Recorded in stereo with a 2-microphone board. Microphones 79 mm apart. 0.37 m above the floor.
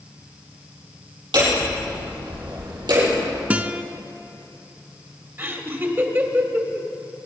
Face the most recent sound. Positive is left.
turn(degrees=-25)  # may be behind; listen again after turning